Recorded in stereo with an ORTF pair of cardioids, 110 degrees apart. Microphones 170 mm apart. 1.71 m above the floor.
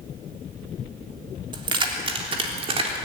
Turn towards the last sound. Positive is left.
turn(degrees=-35)